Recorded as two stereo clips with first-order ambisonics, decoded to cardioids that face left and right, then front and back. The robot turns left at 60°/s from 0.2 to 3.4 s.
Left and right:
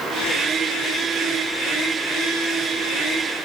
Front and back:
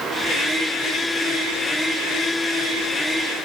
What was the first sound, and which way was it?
Only background noise.